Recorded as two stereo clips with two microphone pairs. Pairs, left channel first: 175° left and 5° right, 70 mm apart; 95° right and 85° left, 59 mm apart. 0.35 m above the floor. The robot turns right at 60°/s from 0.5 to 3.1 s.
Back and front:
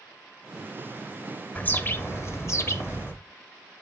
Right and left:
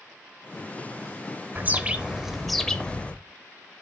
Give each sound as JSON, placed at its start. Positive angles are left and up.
{"t": 1.6, "sound": "a bird", "azimuth_deg": 120, "distance_m": 0.7}